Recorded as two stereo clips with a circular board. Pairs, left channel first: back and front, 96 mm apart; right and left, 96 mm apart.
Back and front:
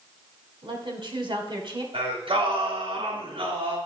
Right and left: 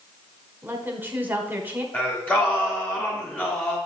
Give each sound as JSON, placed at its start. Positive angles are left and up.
{"t": 0.6, "sound": "a woman speaking", "azimuth_deg": 20, "distance_m": 2.0}
{"t": 1.9, "sound": "singing", "azimuth_deg": -20, "distance_m": 3.0}